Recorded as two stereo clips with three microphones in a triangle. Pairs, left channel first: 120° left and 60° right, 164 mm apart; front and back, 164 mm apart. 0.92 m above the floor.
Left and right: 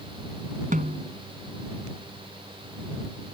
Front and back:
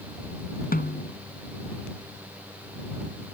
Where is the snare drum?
25° right.